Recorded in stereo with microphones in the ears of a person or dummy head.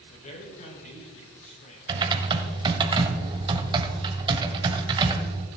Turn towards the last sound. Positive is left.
turn(degrees=-25)  # may be behind; listen again after turning